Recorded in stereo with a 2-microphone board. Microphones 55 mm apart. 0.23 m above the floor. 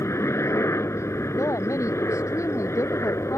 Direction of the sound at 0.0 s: 60° left (ahead or behind).